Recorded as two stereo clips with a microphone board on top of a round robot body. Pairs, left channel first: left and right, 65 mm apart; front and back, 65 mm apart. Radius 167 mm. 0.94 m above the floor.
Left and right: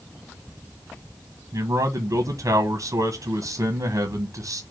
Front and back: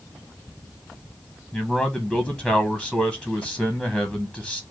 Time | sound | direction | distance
1.5 | a man speaking | 100° right | 1.2 m